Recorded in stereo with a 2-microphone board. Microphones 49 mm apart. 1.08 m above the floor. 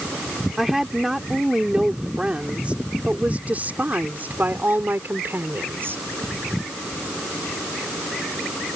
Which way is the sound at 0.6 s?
5° right (ahead or behind).